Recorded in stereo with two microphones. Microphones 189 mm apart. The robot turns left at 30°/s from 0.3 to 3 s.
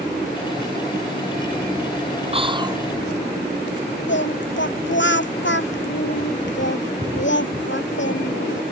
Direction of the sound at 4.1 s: 80° left.